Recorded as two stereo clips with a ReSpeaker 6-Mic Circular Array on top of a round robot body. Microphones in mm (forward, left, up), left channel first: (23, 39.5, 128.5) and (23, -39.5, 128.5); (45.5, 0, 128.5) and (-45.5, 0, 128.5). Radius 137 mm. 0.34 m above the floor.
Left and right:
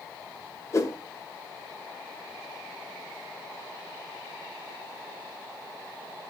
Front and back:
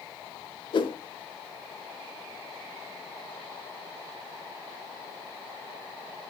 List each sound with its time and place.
0.7 s a whoosh: 35° left, 0.6 m